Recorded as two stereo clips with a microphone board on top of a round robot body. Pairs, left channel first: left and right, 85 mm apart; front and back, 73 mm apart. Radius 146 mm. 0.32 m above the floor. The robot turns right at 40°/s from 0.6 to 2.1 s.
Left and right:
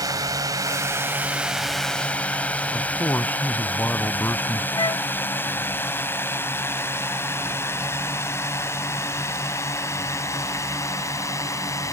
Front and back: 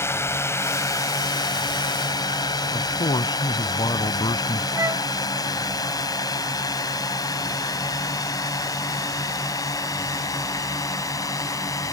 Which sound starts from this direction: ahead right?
A drone, at 0.0 s.